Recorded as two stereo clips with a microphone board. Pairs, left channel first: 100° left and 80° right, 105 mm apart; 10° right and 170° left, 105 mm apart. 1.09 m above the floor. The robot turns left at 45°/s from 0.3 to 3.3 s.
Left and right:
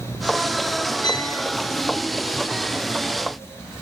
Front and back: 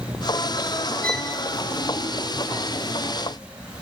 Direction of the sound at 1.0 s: 90° right.